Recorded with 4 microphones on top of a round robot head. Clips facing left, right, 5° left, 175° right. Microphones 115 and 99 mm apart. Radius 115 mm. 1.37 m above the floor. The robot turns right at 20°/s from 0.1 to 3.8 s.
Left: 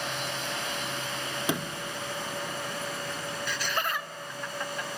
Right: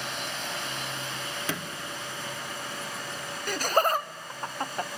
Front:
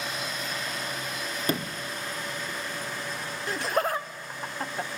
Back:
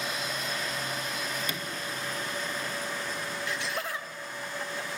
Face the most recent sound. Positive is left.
turn(degrees=-40)